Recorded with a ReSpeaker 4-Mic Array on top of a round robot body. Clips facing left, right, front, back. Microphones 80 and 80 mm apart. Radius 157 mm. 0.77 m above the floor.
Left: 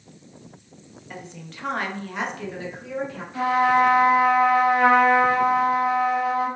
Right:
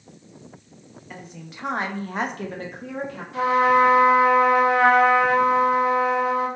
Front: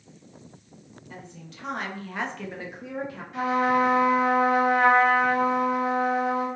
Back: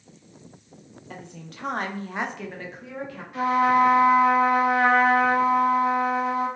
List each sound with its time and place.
1.1 s a woman speaking: straight behind, 1.0 m; by 3.2 s 60° right, 1.0 m
3.3 s a trumpet: 90° right, 1.5 m